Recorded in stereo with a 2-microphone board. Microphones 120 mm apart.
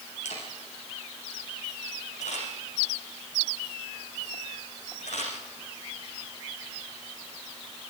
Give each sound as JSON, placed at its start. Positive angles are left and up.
{"t": 0.2, "sound": "a camera shutter", "side_deg": 80, "distance_m": 9.5}